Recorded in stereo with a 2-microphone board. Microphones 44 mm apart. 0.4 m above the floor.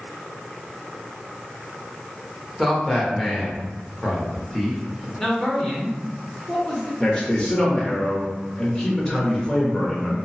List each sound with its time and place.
2.6 s a man speaking: centre (ahead or behind), 0.8 m
5.2 s a man speaking: 10° left (ahead or behind), 0.9 m
7.0 s a man speaking: 20° left (ahead or behind), 0.9 m